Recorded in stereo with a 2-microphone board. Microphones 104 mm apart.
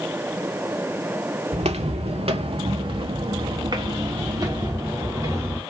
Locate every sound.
1.5 s footsteps: 85° right, 1.1 m; by 5.6 s 30° right (ahead or behind), 2.5 m